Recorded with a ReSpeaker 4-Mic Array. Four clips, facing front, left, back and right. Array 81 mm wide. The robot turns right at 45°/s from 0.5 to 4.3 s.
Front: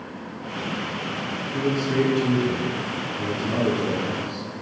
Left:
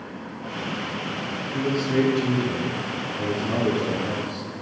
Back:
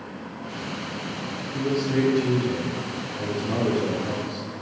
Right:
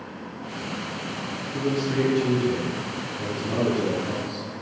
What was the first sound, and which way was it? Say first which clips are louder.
A man speaking: left 2 dB, front 1 dB; 20° right.